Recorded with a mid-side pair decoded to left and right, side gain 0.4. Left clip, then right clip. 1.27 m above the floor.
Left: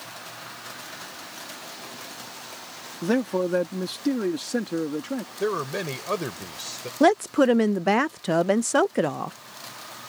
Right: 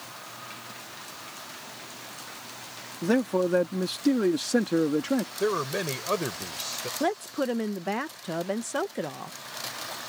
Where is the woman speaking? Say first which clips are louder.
Left 10 dB; 60° left.